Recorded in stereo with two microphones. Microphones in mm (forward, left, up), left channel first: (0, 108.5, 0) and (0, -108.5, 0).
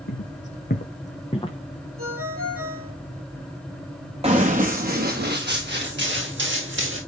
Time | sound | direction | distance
0.1 | footsteps | 65° left (ahead or behind) | 1.3 m
2.0 | a ringtone | 85° right | 5.5 m
4.2 | running footsteps | 30° right (ahead or behind) | 2 m